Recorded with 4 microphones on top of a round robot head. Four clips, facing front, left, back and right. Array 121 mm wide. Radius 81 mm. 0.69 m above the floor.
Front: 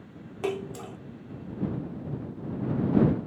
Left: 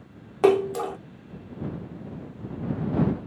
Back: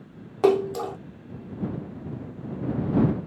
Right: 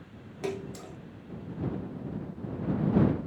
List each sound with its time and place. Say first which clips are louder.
0.4 s a splash: left 16 dB, back 11 dB; 125° left